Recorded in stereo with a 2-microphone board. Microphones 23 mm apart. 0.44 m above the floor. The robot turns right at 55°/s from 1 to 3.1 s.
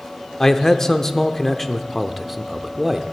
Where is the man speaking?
15° left (ahead or behind), 0.7 m; by 3.0 s 20° right (ahead or behind), 0.7 m.